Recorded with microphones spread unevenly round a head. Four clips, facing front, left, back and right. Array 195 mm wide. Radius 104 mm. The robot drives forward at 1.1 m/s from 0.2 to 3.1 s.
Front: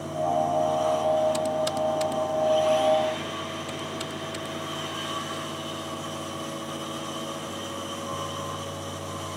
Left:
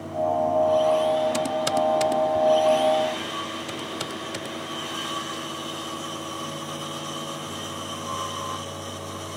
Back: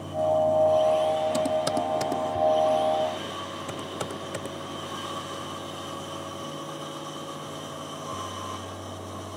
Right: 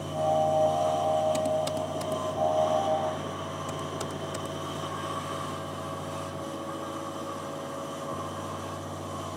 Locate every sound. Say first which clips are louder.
1.3 s typing on a keyboard: left 4 dB, back 1 dB; 155° left; by 4.5 s 170° left